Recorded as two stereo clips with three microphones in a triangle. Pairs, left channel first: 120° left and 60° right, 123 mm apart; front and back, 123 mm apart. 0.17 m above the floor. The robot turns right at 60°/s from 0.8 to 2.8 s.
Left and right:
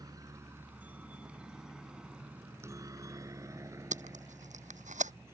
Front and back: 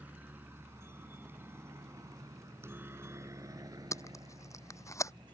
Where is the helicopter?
105° right; by 5.3 s 130° right.